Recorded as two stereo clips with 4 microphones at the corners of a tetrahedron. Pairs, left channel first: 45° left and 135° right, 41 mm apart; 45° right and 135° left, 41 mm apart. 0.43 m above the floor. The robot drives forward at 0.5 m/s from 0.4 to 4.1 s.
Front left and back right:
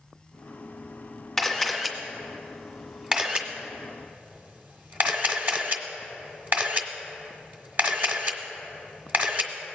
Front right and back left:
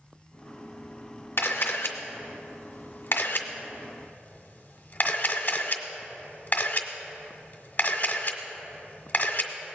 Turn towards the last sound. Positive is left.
turn(degrees=-95)